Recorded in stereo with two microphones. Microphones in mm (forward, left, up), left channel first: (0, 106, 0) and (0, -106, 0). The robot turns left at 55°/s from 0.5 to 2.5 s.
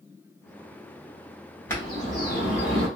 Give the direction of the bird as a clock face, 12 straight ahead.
6 o'clock.